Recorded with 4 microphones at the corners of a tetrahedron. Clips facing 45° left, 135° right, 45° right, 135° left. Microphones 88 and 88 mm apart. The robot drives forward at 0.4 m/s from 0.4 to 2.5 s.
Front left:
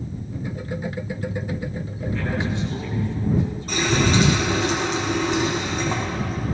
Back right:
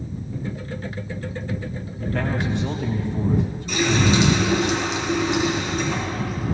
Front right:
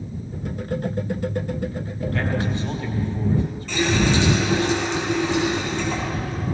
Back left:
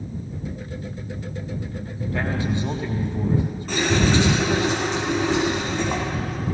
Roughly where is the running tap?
Left.